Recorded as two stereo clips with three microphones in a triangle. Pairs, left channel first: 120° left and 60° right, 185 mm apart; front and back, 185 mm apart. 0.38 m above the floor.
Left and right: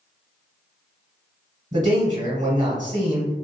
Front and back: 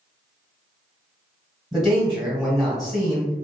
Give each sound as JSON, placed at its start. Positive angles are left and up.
{"t": 1.7, "sound": "a man speaking", "azimuth_deg": -90, "distance_m": 1.2}